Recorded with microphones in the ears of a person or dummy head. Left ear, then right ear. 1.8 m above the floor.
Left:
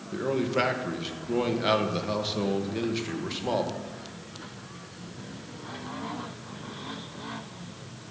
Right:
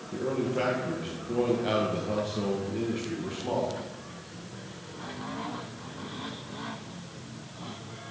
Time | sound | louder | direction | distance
0.1 | a man speaking | left 3 dB | 40° left (ahead or behind) | 1.8 m